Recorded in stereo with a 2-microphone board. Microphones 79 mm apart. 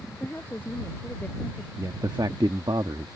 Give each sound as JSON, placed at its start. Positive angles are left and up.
{"t": 0.2, "sound": "a woman speaking", "side_deg": 20}
{"t": 1.8, "sound": "a man speaking", "side_deg": -70}